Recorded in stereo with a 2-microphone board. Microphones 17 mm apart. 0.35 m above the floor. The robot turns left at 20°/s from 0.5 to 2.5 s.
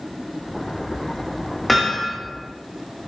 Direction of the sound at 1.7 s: 10° left (ahead or behind).